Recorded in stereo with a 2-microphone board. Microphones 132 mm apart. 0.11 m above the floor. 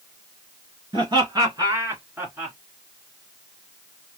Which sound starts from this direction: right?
Laughter, at 0.9 s.